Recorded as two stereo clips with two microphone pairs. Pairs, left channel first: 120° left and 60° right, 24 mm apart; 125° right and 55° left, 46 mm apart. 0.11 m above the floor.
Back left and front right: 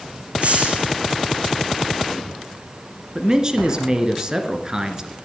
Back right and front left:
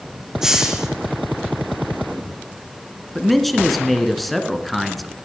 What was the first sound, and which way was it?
A hiss, 25° right.